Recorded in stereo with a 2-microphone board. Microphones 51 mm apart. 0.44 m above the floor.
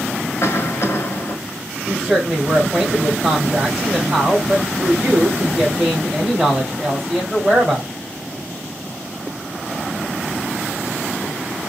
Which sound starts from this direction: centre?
A woman speaking, at 1.9 s.